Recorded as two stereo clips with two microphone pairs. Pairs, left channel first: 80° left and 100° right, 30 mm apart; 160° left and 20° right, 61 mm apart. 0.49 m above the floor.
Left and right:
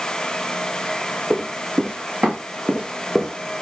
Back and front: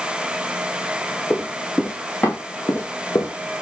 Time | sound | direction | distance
1.3 | running footsteps | 125° right | 3 m